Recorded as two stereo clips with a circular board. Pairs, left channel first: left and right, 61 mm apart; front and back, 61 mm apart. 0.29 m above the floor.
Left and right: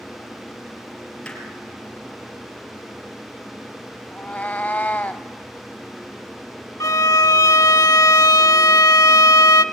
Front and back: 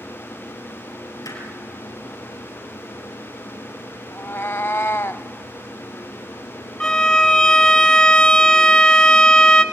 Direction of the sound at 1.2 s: 15° left.